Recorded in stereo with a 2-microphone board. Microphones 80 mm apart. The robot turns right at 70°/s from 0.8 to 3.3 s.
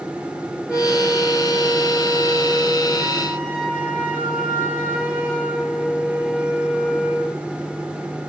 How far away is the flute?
About 4 m.